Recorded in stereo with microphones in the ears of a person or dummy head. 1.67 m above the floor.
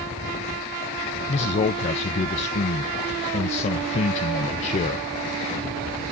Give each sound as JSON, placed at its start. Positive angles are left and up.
{"t": 1.3, "sound": "a man speaking", "side_deg": 40, "distance_m": 1.0}